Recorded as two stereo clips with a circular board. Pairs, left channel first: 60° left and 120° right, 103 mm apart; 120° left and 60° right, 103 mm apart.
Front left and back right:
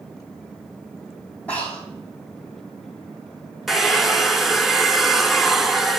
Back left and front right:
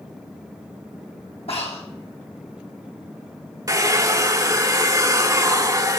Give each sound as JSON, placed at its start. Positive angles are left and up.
{"t": 1.5, "sound": "breathing", "azimuth_deg": 140, "distance_m": 2.5}
{"t": 3.7, "sound": "a hair dryer", "azimuth_deg": -35, "distance_m": 0.7}